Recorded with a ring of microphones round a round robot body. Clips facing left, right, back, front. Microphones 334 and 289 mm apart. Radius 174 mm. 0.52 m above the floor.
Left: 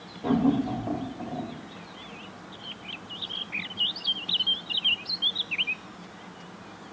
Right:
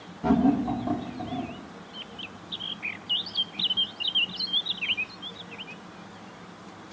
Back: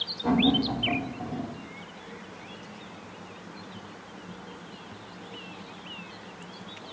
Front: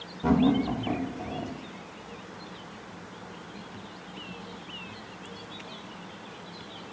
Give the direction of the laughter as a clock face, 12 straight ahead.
1 o'clock.